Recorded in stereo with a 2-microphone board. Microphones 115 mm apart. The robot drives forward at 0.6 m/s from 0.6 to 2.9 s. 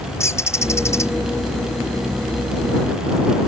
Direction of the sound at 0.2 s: 25° left (ahead or behind).